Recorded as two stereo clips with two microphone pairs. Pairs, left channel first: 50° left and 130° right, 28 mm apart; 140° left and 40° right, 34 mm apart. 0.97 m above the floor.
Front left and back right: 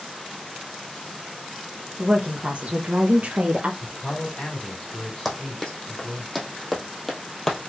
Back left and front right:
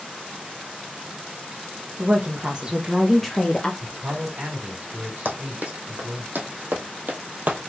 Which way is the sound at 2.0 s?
70° right.